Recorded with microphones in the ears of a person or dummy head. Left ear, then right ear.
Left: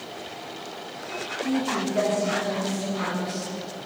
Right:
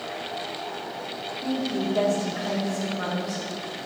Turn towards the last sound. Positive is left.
turn(degrees=-20)  # may be behind; listen again after turning